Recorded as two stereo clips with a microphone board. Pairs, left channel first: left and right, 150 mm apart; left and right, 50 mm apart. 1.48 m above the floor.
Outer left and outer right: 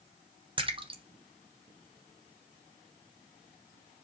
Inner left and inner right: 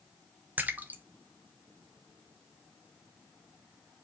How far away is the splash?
About 1.2 m.